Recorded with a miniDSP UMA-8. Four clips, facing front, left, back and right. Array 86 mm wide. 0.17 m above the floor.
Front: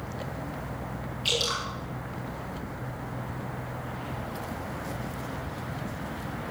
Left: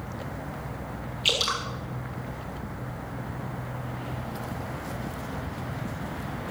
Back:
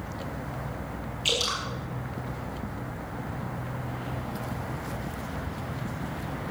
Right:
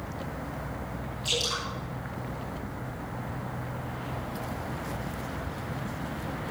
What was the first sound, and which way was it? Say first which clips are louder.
Dripping: left 4 dB, even; 105° left.